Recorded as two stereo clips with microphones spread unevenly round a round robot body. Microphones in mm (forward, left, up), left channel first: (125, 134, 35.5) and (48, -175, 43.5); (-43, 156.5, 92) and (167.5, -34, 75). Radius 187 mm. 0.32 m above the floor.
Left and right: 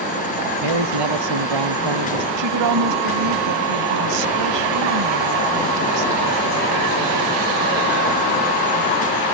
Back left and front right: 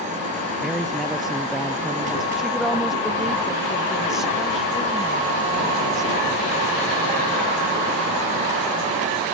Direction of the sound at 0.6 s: 130° right.